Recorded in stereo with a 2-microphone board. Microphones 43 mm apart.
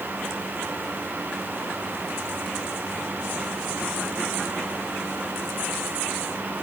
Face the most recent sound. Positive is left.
No sound to turn to.